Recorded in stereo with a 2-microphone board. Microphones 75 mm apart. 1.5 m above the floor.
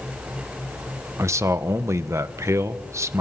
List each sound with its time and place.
1.2 s a man speaking: 40° right (ahead or behind), 1.1 m